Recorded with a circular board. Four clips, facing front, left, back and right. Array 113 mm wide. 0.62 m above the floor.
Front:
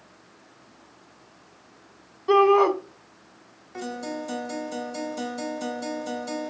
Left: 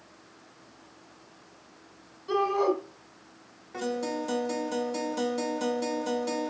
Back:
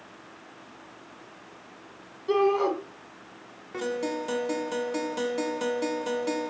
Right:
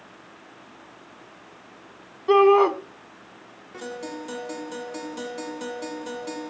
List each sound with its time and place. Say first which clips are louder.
2.3 s a shout: right 10 dB, front 6 dB; 65° right, 1.9 m
3.7 s a guitar: left 4 dB, back 3 dB; 175° left, 3 m